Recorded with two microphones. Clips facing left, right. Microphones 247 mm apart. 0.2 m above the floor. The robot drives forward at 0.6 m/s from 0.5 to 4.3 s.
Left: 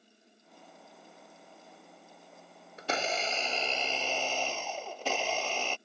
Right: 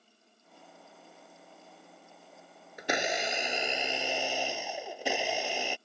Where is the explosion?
No explosion in this recording.